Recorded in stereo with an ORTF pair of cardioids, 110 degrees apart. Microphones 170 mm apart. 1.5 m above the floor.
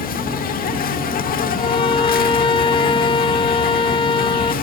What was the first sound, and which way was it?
An insect, 55° left.